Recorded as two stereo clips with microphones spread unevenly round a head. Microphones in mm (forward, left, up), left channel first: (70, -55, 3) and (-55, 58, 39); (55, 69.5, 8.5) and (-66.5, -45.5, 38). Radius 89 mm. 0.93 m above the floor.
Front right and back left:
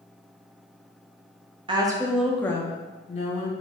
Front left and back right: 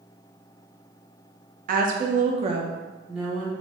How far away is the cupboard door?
I don't hear a cupboard door.